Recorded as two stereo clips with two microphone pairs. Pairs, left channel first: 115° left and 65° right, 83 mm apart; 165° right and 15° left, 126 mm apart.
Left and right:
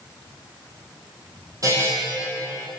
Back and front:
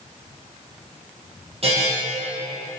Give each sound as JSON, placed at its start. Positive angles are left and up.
{"t": 1.6, "sound": "a buzzer", "azimuth_deg": -20, "distance_m": 4.0}